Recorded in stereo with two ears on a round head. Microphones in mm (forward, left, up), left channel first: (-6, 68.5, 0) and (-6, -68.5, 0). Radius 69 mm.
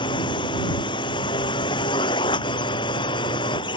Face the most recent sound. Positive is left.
turn(degrees=30)  # may be behind; listen again after turning